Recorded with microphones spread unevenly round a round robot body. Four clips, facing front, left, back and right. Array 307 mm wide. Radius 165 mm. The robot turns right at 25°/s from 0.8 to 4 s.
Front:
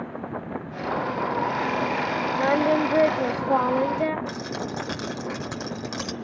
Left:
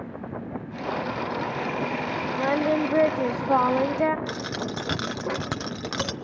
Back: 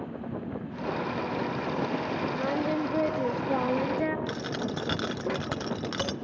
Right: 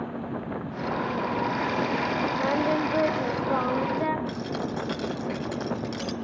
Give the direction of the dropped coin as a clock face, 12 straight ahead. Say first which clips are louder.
Even, front 1 dB; 8 o'clock.